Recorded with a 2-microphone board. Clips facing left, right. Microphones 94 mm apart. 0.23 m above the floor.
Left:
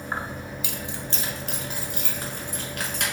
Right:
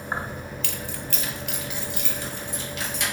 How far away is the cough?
I don't hear a cough.